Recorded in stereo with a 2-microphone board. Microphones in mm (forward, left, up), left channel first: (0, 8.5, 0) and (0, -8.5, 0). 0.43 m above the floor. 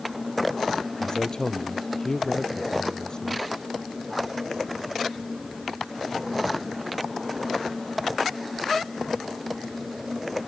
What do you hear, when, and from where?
1.0 s a man speaking: 35° left (ahead or behind)